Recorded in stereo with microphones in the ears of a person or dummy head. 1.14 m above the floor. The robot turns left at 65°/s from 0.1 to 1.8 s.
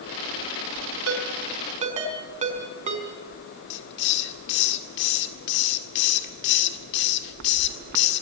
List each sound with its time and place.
1.1 s a ringtone: 80° right, 4.5 m; by 3.1 s 40° right (ahead or behind), 4.5 m
3.7 s a hiss: 55° left (ahead or behind), 1.9 m